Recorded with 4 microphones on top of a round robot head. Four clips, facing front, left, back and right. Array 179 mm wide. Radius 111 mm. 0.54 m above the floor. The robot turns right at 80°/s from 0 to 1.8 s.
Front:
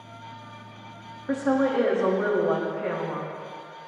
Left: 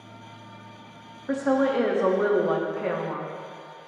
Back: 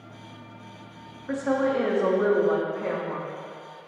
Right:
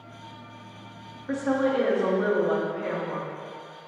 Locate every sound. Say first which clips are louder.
1.3 s a woman speaking: left 2 dB, front 1 dB; 35° left, 1.0 m; by 3.3 s 80° left, 1.0 m